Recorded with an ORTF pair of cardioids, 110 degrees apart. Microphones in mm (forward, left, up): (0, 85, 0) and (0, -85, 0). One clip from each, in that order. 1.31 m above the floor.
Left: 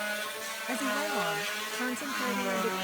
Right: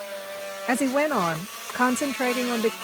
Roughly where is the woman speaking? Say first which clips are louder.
Right 9 dB; right.